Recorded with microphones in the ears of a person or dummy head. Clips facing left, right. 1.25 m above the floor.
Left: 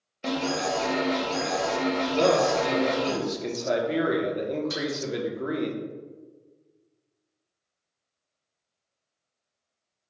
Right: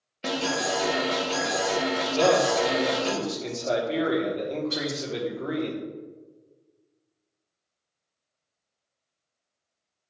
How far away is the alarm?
About 0.7 m.